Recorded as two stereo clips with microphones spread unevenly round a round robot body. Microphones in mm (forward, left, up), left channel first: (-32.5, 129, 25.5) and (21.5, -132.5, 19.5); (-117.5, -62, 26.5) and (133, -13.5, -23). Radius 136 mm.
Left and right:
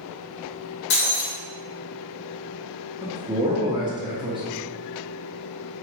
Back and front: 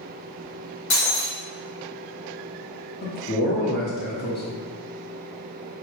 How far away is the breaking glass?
About 1.3 m.